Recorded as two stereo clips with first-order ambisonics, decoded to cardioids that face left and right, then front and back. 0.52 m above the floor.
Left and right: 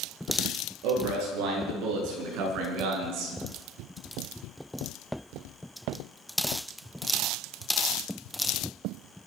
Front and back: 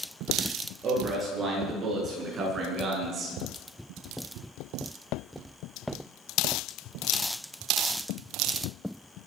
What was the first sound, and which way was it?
A man speaking, 115° right.